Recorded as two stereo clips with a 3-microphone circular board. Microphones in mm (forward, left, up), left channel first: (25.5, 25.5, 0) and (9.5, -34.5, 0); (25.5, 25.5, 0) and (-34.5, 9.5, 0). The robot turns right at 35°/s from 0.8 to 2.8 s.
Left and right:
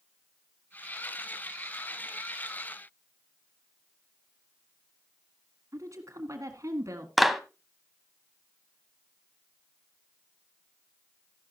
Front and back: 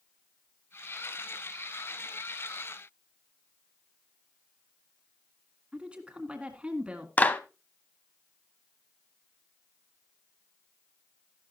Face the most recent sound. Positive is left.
turn(degrees=-15)